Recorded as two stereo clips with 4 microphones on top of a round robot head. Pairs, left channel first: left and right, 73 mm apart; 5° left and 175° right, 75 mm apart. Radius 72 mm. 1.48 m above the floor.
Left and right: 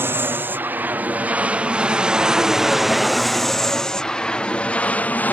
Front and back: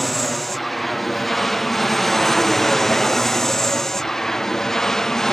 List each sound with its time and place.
0.0 s an aircraft: 80° right; by 5.3 s 80° left